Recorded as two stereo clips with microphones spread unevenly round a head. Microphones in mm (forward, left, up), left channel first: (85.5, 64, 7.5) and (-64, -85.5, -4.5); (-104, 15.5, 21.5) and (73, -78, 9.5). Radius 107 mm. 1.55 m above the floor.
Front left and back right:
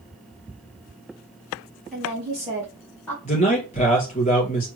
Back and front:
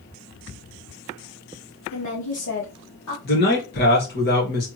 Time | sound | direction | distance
1.9 | a woman speaking | 140° left | 2 m
3.2 | a man speaking | 110° left | 2.5 m